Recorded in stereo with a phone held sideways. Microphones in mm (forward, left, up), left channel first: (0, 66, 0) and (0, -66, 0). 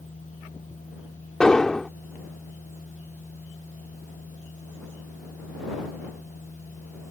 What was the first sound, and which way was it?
A machine running, 75° left (ahead or behind).